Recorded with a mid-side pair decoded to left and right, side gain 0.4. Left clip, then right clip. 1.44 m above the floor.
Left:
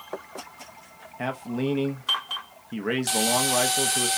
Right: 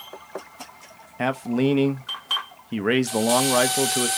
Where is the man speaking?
50° right, 0.5 m.